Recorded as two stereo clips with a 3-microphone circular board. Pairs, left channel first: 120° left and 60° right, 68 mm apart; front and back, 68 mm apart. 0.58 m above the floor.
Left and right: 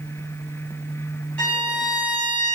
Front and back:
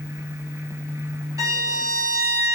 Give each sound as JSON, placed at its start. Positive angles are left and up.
{"t": 1.4, "sound": "a violin", "azimuth_deg": -175, "distance_m": 1.8}